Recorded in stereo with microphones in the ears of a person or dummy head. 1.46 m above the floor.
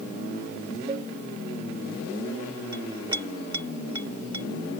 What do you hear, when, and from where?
0.9 s a cowbell: 35° right (ahead or behind)
2.7 s a clink: 30° right (ahead or behind)